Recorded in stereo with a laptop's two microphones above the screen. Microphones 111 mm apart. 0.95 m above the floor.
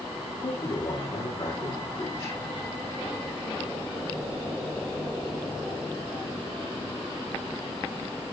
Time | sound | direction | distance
0.4 | a man speaking | 55° left (ahead or behind) | 2.5 m